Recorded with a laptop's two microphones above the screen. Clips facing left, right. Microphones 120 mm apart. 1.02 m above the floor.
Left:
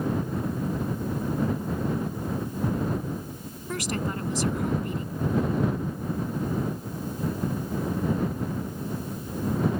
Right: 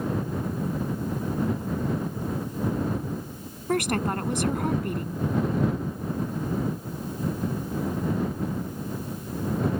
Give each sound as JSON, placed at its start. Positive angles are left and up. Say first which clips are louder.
{"t": 3.7, "sound": "a woman speaking", "louder": "right 5 dB", "side_deg": -60}